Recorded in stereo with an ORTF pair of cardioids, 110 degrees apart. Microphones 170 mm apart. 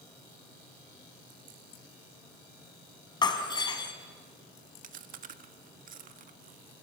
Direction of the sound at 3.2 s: 25° left.